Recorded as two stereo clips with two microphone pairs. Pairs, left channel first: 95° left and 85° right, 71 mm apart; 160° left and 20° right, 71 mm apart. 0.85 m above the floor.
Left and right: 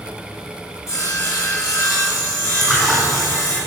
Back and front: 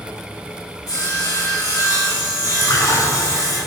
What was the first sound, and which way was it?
Sawing, 135° left.